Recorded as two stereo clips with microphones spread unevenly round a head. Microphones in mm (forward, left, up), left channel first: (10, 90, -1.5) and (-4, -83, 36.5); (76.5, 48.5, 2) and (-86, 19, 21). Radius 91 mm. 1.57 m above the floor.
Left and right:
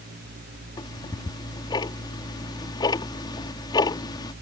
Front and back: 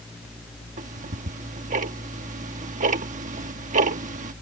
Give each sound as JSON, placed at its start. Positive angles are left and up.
{"t": 0.8, "sound": "ticking", "azimuth_deg": 160}